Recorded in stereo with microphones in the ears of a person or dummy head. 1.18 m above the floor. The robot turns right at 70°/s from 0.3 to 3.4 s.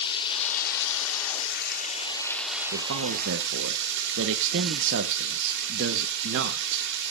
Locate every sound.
0.0 s running water: 25° left, 1.9 m; by 7.1 s 120° right, 1.9 m
2.7 s a man speaking: 115° right, 0.8 m; by 6.9 s 70° right, 0.8 m